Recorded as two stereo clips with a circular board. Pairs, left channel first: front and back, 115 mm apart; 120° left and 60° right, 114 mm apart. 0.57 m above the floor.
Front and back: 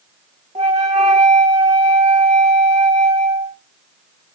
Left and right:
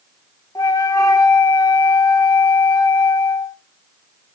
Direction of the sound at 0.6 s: 175° left.